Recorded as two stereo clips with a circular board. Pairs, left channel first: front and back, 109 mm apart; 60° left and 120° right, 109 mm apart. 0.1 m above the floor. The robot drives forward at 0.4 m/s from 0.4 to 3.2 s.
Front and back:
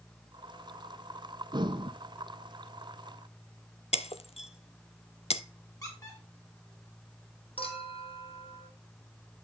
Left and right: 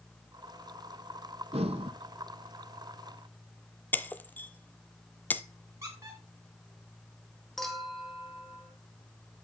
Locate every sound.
1.5 s breathing: 135° right, 1.0 m; by 1.9 s 140° right, 1.2 m
3.9 s breaking glass: 15° right, 0.7 m
5.8 s a squeak: 60° right, 5.5 m
7.6 s a clink: 30° right, 2 m